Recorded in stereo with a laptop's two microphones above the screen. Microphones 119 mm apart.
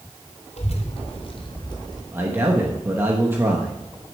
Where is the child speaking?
65° left (ahead or behind), 3 m; by 2.0 s 35° left (ahead or behind), 4 m.